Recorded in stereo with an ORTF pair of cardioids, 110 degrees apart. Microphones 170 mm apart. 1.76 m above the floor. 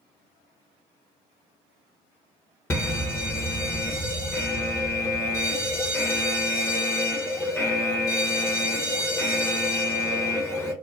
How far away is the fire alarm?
About 0.8 m.